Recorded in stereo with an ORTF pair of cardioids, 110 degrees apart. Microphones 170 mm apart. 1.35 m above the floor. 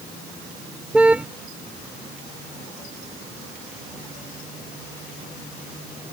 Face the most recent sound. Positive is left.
turn(degrees=-5)